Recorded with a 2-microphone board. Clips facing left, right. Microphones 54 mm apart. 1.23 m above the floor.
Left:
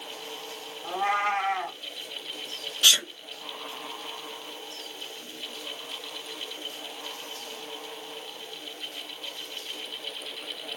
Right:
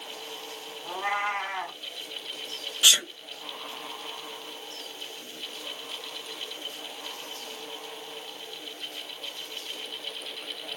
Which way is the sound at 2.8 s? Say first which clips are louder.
Even; 10° right (ahead or behind).